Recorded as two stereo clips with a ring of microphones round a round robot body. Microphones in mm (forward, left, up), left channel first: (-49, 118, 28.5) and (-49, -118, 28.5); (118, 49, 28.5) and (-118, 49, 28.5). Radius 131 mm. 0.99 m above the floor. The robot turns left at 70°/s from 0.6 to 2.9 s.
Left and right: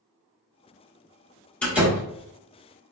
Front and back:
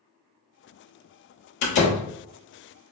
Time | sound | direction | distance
1.6 | a door slam | 5° left | 1.2 m